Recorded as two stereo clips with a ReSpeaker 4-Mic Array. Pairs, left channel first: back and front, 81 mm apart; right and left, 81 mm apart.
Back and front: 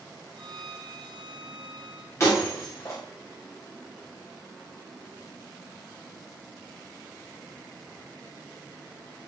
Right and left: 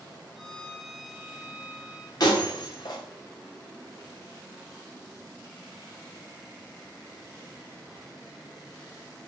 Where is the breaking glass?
125° right, 8.5 m.